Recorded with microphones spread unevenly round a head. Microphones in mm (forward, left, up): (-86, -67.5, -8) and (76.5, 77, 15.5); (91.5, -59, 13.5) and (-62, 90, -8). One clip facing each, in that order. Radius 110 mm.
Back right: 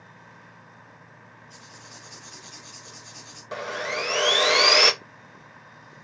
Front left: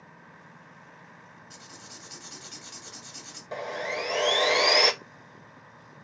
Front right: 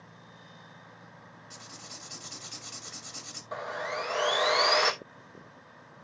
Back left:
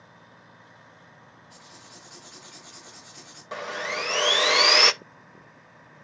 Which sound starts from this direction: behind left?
Sawing, at 3.5 s.